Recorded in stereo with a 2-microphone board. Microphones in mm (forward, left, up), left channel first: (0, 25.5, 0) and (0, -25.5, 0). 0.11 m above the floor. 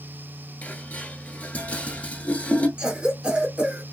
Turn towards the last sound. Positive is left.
turn(degrees=-15)  # may be behind; listen again after turning